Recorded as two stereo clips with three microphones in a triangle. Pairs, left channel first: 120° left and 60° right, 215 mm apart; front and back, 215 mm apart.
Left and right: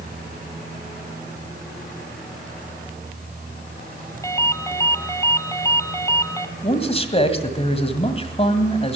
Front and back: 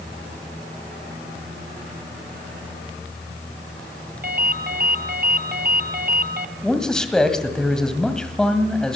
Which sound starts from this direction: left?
A man speaking, at 6.6 s.